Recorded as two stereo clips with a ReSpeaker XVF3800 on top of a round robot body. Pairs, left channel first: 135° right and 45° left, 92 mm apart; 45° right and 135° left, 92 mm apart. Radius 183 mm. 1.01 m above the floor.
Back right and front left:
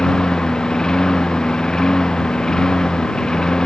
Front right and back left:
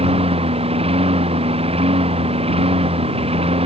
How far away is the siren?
I don't hear a siren.